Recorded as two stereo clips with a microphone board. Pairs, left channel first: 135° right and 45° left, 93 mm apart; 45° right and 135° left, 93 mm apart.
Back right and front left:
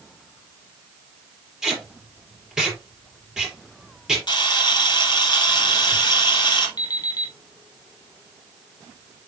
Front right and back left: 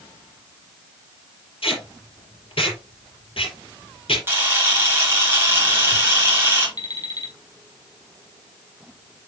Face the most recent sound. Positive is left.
turn(degrees=-90)